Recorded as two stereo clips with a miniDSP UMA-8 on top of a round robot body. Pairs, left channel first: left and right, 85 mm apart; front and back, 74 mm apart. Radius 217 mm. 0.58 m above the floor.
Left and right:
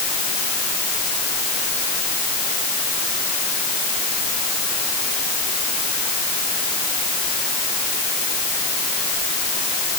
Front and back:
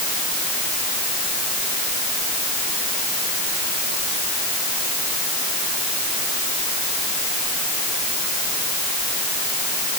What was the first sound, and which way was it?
Only background noise.